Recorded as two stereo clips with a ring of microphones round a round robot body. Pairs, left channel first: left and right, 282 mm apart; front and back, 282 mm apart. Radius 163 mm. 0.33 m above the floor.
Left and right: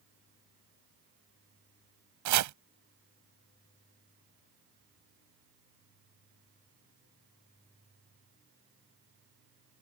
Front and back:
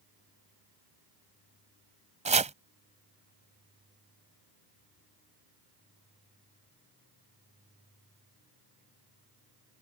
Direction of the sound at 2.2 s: 115° right.